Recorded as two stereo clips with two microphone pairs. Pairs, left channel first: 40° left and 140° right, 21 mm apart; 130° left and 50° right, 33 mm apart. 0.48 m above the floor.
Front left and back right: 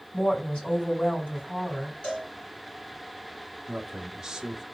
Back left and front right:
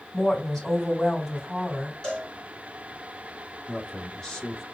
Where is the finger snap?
No finger snap in this recording.